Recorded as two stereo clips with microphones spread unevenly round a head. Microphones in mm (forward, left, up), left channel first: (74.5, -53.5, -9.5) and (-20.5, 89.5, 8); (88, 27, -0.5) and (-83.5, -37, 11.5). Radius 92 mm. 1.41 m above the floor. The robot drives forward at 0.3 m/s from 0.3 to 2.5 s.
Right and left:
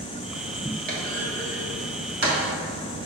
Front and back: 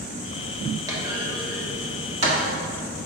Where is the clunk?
135° left, 1.2 m; by 2.4 s 150° left, 1.5 m.